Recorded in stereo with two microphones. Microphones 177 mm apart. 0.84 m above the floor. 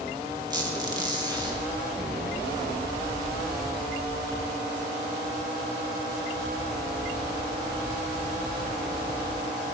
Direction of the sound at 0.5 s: 25° right (ahead or behind).